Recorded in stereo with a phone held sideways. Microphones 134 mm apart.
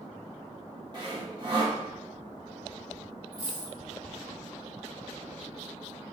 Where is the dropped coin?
45° left (ahead or behind), 1.9 m.